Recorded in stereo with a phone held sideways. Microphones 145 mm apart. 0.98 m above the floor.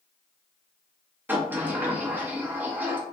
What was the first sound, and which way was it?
A sliding door, 15° right (ahead or behind).